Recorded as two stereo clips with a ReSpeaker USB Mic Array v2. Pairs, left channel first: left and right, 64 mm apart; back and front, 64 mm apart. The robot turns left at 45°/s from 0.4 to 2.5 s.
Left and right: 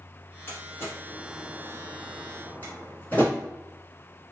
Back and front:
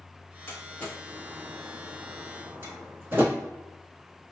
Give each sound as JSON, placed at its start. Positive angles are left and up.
{"t": 0.5, "sound": "a door slam", "azimuth_deg": 130, "distance_m": 1.5}